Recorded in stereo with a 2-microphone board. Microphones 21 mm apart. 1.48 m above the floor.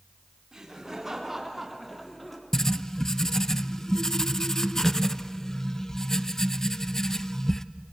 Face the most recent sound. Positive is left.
turn(degrees=20)  # may be behind; listen again after turning